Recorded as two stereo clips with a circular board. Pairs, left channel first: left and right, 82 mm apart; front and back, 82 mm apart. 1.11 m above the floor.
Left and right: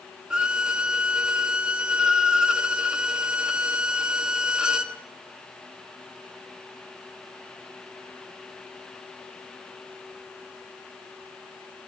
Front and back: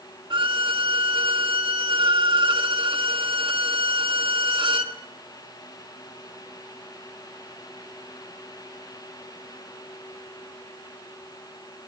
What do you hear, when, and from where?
0.3 s a violin: 170° right, 1.5 m